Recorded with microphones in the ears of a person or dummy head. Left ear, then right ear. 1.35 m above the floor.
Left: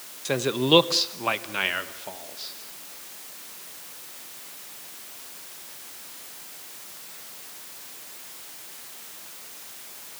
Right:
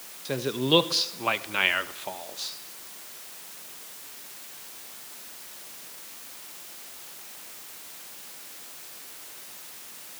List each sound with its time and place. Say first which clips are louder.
0.2 s a man speaking: left 3 dB; 35° left (ahead or behind), 1.3 m; by 2.6 s 40° right (ahead or behind), 1.6 m